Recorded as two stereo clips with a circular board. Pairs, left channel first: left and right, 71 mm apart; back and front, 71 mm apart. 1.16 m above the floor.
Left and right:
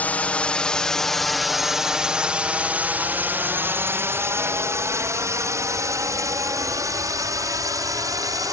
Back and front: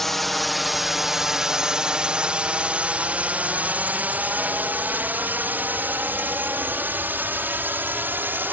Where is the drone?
100° left; by 8.5 s 60° right.